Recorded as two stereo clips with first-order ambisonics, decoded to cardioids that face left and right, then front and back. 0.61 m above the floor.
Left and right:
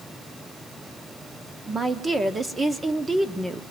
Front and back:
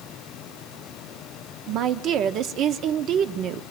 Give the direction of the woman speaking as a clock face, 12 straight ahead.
5 o'clock.